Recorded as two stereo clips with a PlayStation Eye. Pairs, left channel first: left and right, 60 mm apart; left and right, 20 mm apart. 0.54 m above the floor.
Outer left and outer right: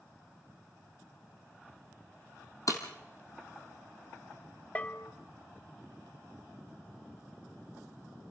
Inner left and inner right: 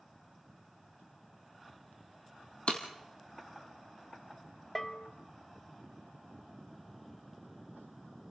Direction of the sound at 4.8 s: 25° left (ahead or behind).